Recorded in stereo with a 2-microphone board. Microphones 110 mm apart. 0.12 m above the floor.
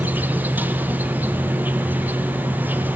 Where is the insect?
15° right (ahead or behind), 1.2 m.